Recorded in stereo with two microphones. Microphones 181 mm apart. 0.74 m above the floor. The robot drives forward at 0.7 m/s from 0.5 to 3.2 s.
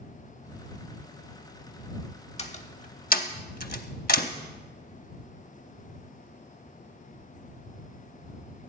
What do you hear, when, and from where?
2.4 s a door slam: 35° left (ahead or behind), 1.2 m; by 4.3 s 60° left (ahead or behind), 0.8 m